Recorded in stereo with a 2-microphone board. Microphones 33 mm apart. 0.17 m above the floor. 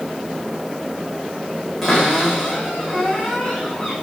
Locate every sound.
1.8 s a cupboard door: centre (ahead or behind), 8 m